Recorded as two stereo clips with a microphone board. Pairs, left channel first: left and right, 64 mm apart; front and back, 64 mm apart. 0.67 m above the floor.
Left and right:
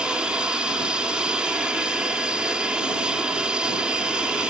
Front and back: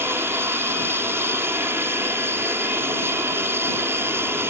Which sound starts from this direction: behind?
An aircraft, at 0.0 s.